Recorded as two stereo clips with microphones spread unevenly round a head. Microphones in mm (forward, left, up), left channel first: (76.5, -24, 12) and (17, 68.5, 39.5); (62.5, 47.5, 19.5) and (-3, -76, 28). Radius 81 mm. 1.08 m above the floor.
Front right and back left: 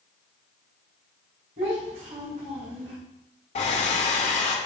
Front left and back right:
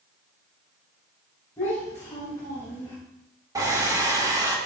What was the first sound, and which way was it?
A child speaking, 135° left.